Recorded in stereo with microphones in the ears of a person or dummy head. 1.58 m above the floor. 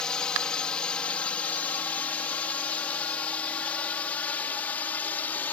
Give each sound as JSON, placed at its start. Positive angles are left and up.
{"t": 0.0, "sound": "a drone", "side_deg": 5}